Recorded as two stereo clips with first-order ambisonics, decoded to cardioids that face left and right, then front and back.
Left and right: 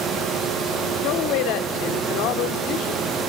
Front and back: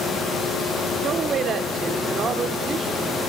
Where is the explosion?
I don't hear an explosion.